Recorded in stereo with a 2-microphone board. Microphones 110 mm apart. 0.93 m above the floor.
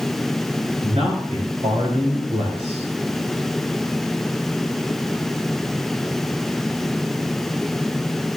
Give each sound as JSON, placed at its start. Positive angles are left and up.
{"t": 0.8, "sound": "a man speaking", "side_deg": -80, "distance_m": 4.0}